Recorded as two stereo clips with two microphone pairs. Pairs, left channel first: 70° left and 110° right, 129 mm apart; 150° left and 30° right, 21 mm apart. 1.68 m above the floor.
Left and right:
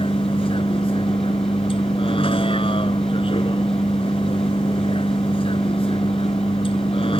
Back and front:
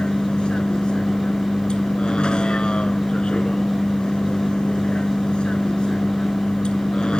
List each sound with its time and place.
0.0 s a vehicle: 115° left